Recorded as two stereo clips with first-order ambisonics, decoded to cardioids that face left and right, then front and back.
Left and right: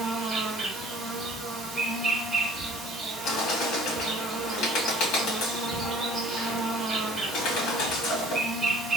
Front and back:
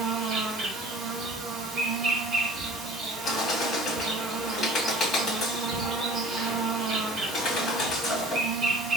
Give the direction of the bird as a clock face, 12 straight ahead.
10 o'clock.